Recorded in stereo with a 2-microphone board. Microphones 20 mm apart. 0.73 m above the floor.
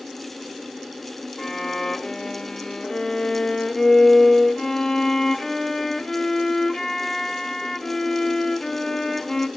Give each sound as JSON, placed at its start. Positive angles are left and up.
{"t": 1.4, "sound": "a violin", "side_deg": 15, "distance_m": 0.7}